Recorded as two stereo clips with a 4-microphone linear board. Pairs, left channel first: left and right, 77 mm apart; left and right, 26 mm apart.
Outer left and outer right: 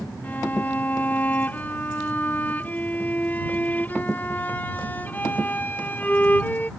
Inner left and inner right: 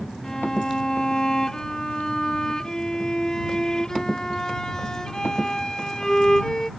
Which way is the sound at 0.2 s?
25° left (ahead or behind).